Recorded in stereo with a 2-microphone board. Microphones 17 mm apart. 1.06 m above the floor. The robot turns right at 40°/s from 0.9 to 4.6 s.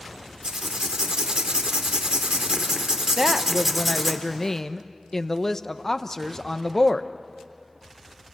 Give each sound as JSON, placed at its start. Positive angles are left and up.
{"t": 0.4, "sound": "writing", "azimuth_deg": -125, "distance_m": 1.9}
{"t": 3.2, "sound": "a woman speaking", "azimuth_deg": -15, "distance_m": 0.9}